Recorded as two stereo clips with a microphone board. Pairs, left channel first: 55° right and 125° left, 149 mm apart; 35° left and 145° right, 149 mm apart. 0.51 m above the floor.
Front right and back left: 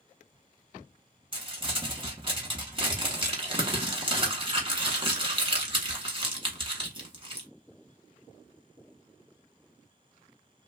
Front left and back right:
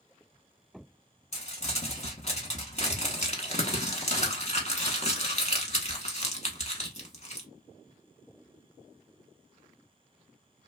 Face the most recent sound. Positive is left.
turn(degrees=75)